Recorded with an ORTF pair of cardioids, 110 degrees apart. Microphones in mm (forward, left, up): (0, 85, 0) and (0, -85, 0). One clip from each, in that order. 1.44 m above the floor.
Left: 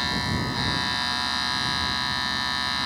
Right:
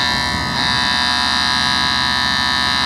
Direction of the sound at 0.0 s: 50° right.